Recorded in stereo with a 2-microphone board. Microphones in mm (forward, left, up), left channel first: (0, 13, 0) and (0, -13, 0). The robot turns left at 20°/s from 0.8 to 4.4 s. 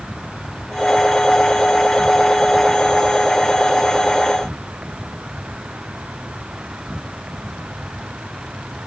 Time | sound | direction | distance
0.0 | an insect | 25° left | ?